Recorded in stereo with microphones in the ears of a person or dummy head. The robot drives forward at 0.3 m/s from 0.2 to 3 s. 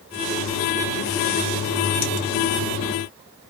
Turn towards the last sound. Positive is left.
No sound to turn to.